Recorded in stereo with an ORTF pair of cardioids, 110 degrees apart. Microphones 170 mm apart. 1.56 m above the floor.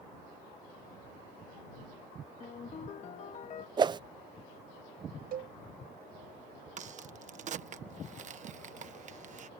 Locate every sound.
2.4 s a ringtone: 45° left
3.8 s a whoosh: 25° right
5.3 s a cowbell: 60° right
6.8 s a crack: 45° right